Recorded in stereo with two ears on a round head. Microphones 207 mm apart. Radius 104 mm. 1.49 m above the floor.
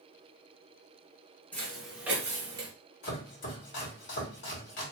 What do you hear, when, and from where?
1.5 s footsteps: 5° left (ahead or behind), 1.6 m; by 2.7 s 25° right (ahead or behind), 1.6 m
3.0 s chopping: 55° left (ahead or behind), 1.9 m